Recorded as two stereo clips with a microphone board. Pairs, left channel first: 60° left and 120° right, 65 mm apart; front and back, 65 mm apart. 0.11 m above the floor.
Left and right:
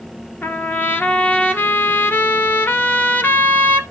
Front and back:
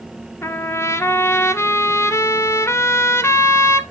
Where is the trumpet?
20° left, 0.8 m.